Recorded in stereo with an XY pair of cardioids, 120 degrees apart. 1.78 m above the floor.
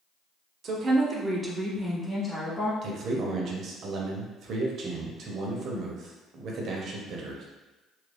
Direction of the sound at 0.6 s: 50° right.